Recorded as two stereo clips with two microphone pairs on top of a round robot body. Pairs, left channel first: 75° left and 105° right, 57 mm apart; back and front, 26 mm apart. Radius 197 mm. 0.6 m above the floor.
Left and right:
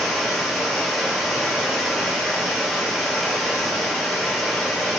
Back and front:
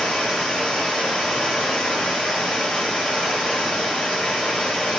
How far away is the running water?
About 1.9 m.